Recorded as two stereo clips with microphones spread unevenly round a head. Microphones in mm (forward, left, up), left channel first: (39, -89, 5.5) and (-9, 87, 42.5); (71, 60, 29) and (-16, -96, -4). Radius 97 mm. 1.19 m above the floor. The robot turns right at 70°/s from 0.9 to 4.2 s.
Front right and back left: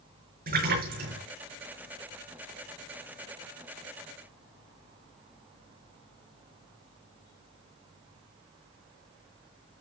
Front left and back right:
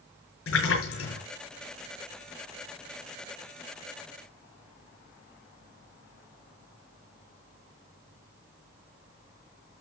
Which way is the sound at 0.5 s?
65° left.